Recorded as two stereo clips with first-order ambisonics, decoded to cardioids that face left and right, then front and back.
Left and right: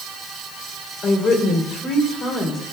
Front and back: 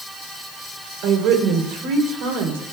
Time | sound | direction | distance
1.0 | a woman speaking | 155° left | 3 m